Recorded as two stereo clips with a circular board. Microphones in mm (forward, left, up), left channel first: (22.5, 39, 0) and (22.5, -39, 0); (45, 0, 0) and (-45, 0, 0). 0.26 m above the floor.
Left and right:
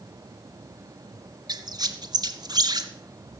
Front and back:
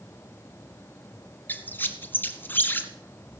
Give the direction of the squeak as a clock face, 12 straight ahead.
2 o'clock.